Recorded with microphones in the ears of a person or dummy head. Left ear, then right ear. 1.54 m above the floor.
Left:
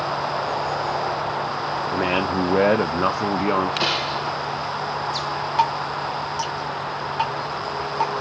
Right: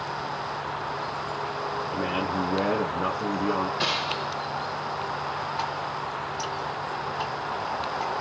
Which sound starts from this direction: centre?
A gunshot, at 3.8 s.